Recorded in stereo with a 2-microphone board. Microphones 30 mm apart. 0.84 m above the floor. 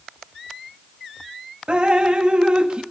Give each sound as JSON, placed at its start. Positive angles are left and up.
{"t": 1.7, "sound": "dripping", "side_deg": -40, "distance_m": 1.4}